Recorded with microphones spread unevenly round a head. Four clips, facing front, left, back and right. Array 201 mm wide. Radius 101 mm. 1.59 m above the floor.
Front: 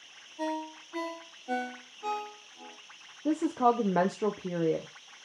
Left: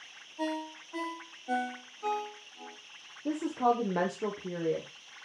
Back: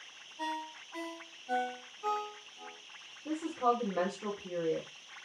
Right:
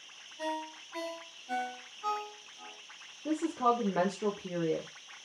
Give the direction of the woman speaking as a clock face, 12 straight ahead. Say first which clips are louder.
Left 1 dB, front 6 dB; 12 o'clock.